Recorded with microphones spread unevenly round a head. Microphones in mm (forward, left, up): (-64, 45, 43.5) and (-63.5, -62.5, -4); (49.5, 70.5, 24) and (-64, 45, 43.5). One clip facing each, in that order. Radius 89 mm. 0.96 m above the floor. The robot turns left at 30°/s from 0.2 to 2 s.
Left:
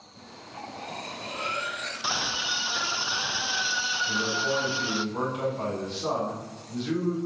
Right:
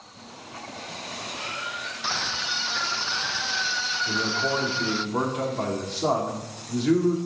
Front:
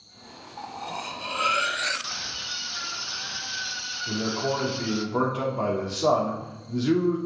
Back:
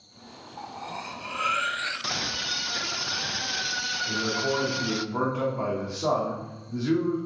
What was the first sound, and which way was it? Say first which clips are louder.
Cutlery clinking: left 2 dB, front 2 dB; 105° left.